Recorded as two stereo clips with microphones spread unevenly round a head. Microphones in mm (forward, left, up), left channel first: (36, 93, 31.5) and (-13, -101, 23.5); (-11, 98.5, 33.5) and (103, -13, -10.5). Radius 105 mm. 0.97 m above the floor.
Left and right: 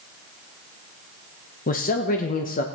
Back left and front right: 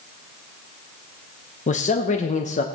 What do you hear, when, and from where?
1.7 s a man speaking: 95° left, 1.0 m